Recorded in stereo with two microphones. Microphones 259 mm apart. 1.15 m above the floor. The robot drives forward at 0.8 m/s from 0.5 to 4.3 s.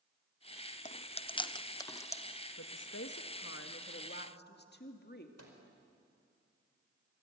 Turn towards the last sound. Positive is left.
turn(degrees=-70)  # may be behind; listen again after turning